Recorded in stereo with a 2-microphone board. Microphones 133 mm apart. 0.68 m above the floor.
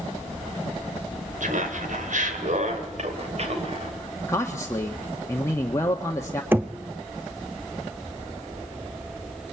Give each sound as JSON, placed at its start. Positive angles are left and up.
{"t": 1.4, "sound": "laughter", "side_deg": -70, "distance_m": 3.0}
{"t": 4.3, "sound": "a man speaking", "side_deg": 20, "distance_m": 1.4}
{"t": 6.5, "sound": "knocking", "side_deg": -15, "distance_m": 0.8}